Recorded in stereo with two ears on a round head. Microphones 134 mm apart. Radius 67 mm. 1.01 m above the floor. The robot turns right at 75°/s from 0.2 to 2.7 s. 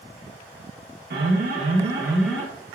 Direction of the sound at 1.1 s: 90° right.